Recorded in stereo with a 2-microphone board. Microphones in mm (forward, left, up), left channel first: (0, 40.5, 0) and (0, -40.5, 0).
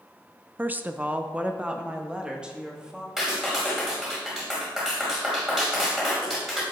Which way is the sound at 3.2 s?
5° right (ahead or behind).